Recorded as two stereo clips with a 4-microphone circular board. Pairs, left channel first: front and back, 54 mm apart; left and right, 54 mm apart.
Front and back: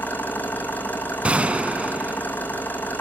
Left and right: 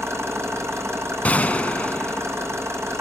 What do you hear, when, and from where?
0.0 s an engine running: 55° right, 3 m
1.2 s a gunshot: 130° left, 0.8 m